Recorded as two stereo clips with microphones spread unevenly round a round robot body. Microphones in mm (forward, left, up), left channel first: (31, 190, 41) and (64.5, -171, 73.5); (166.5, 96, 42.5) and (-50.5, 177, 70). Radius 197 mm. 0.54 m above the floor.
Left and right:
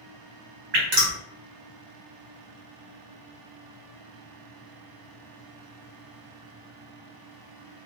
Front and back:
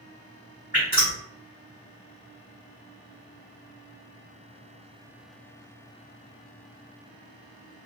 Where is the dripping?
85° right, 1.4 m.